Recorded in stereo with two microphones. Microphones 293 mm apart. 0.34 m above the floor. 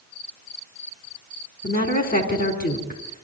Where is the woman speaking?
35° left (ahead or behind), 3.5 m.